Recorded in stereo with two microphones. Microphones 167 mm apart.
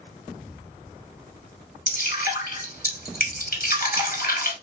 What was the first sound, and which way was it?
Dripping, 60° left (ahead or behind).